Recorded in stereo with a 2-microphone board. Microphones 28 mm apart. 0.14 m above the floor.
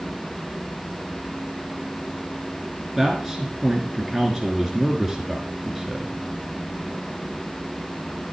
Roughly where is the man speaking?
Centre.